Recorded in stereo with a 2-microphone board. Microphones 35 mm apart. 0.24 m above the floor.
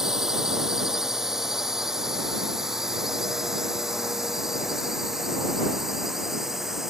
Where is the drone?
15° right (ahead or behind); by 6.9 s 10° right (ahead or behind).